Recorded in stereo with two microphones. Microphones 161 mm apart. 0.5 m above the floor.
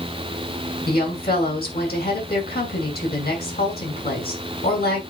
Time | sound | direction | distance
0.9 | a woman speaking | 75° left (ahead or behind) | 7 m